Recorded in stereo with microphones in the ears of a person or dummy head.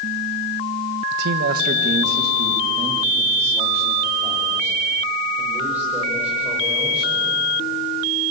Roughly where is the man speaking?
Right.